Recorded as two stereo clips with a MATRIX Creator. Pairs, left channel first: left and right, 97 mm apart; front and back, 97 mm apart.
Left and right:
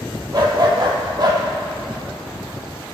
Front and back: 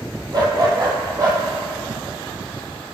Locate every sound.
0.3 s a dog barking: 135° right, 2.5 m; by 1.4 s 130° right, 3.5 m